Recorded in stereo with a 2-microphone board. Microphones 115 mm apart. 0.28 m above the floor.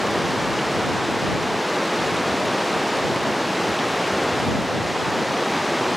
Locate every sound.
0.0 s running water: centre (ahead or behind)